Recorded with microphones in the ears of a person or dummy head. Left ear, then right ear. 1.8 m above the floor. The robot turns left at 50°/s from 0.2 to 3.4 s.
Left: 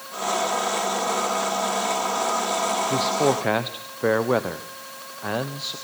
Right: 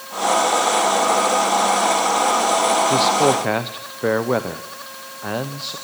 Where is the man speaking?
15° right (ahead or behind), 1.2 m; by 5.8 s 10° left (ahead or behind), 1.2 m.